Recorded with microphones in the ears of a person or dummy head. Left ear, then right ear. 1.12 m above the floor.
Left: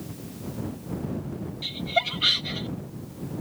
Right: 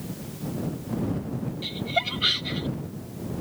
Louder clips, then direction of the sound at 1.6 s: Left 1 dB; 20° left (ahead or behind).